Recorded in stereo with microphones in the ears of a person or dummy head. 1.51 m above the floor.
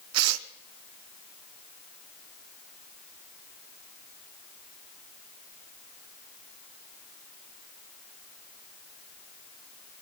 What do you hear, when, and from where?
0.1 s tearing paper: 85° right, 0.7 m